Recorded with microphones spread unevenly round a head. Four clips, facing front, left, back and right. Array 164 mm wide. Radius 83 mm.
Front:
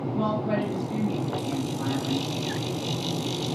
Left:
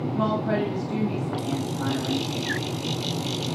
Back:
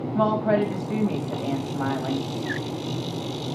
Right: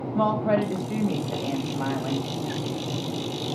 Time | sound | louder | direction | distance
0.1 | a woman speaking | right 3 dB, back 6 dB | 150° right | 1.7 m